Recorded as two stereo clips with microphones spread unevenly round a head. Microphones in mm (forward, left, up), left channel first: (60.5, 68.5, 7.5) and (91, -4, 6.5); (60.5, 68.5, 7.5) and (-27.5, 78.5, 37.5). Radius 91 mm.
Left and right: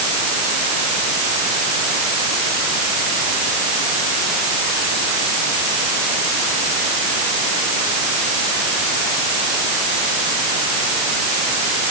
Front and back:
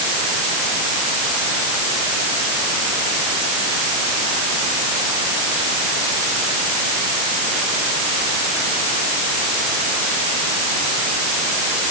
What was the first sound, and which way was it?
Only background noise.